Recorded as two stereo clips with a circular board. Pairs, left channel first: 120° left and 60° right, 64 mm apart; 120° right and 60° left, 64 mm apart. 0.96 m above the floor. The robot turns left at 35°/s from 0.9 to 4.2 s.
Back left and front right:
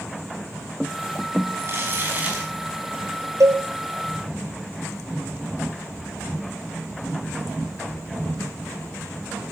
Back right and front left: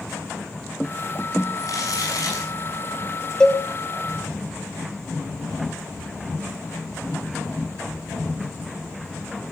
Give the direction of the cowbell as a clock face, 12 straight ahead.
1 o'clock.